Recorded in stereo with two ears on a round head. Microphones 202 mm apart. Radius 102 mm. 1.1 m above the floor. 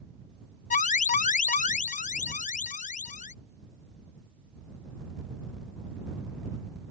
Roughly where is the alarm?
Left.